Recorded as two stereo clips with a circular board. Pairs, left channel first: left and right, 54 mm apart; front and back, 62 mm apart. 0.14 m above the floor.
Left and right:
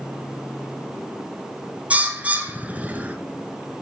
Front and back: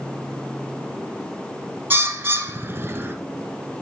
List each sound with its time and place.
1.9 s a bird: 140° right, 0.9 m